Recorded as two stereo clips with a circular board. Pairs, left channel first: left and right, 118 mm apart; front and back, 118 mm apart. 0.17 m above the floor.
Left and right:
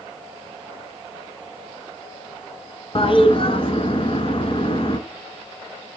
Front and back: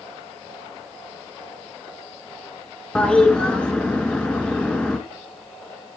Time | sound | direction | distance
3.0 | a toilet flushing | 80° left | 1.5 m